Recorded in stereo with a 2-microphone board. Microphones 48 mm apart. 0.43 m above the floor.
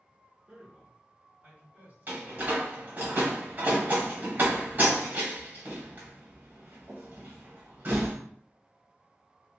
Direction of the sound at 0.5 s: 30° right (ahead or behind).